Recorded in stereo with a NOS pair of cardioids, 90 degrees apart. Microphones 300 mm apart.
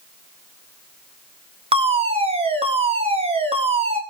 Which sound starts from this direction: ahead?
A fire alarm, at 1.7 s.